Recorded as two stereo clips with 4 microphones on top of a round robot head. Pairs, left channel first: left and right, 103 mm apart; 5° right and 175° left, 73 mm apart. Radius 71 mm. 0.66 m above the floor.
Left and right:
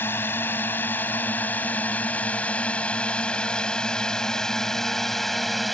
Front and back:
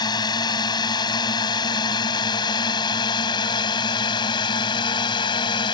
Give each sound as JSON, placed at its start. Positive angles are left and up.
{"t": 0.0, "sound": "a drone", "azimuth_deg": 15}